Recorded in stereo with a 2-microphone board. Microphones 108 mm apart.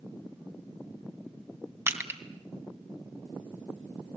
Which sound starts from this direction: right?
Crushing, at 1.9 s.